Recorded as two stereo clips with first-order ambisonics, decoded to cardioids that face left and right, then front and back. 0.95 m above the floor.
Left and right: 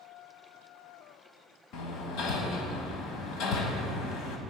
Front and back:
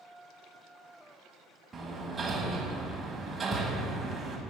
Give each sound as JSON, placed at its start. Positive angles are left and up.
{"t": 1.7, "sound": "hammering", "azimuth_deg": 105, "distance_m": 1.3}